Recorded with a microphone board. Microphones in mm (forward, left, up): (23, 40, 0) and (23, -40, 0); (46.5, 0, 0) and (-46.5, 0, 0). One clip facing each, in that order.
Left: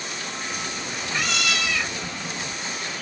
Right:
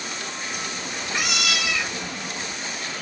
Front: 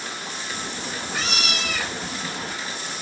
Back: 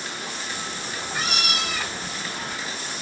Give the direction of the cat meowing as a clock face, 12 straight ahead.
12 o'clock.